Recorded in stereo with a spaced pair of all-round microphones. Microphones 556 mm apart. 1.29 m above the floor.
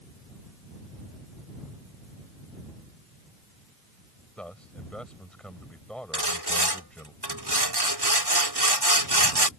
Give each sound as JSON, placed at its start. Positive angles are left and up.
{"t": 4.4, "sound": "a man speaking", "side_deg": 0}
{"t": 6.1, "sound": "sawing", "side_deg": -45}